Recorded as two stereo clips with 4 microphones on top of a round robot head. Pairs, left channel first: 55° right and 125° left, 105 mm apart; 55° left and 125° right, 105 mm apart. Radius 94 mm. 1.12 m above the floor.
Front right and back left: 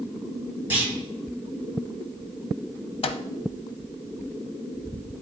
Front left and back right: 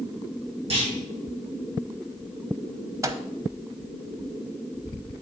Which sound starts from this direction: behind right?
A clunk, at 0.7 s.